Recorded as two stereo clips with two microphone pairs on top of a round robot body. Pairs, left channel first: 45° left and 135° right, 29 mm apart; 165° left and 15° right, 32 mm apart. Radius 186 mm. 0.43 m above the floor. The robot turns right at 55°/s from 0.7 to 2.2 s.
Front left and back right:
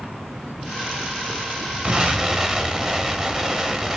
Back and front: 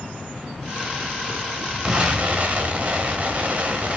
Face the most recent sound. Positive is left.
turn(degrees=-65)